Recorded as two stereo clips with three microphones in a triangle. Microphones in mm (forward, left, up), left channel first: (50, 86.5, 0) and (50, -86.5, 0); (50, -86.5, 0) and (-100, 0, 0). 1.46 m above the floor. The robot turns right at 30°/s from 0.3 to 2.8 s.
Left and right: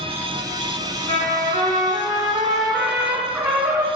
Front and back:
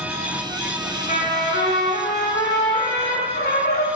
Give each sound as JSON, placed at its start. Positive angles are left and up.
{"t": 1.1, "sound": "a trumpet", "azimuth_deg": -70, "distance_m": 2.0}